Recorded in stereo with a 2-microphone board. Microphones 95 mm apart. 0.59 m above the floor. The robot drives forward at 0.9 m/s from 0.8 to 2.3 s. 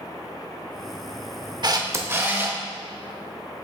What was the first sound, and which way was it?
A camera shutter, 45° right (ahead or behind).